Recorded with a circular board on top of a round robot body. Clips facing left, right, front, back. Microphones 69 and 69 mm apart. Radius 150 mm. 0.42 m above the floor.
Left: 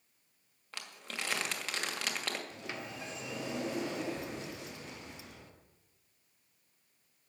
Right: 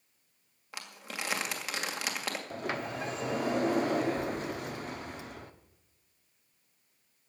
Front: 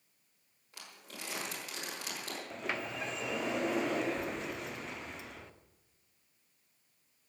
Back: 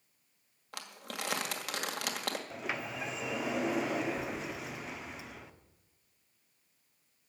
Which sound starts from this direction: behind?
Crumpling, at 0.7 s.